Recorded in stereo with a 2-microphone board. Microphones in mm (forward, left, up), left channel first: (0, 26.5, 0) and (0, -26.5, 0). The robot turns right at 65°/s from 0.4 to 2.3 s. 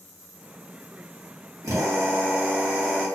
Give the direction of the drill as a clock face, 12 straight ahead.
2 o'clock.